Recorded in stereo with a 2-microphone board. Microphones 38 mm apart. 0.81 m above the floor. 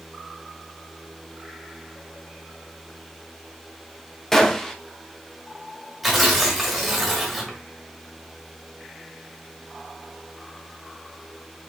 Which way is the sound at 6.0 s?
Centre (ahead or behind).